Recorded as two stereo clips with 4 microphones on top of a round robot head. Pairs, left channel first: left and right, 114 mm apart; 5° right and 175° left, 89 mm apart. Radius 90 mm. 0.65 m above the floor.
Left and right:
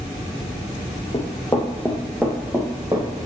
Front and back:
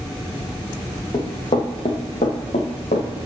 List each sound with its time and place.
1.1 s running footsteps: 30° left, 1.2 m; by 3.2 s 25° right, 1.5 m